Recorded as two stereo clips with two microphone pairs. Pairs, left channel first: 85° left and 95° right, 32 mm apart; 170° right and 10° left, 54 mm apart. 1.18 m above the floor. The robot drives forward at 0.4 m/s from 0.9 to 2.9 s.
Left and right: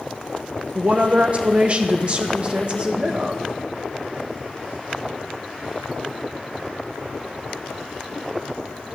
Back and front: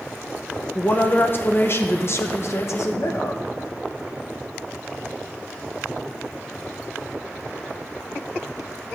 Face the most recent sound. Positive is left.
turn(degrees=-150)